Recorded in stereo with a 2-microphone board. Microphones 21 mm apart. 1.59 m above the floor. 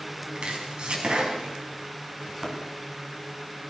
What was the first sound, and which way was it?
Chopping, 70° right (ahead or behind).